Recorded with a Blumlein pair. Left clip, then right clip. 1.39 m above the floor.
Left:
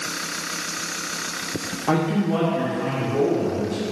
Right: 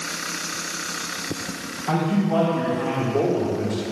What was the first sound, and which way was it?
A man speaking, 20° left.